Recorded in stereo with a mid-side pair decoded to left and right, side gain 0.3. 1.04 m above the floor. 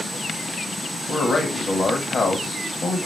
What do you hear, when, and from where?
1.1 s a man speaking: 65° left, 1.4 m